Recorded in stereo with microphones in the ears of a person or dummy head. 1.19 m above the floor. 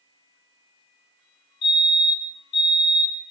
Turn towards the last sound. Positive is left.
turn(degrees=60)  # may be behind; listen again after turning